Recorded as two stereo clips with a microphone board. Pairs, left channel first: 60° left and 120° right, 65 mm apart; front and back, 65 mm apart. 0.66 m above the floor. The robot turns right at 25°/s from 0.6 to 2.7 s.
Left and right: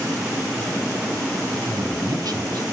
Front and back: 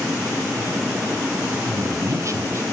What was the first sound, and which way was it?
A man speaking, 155° right.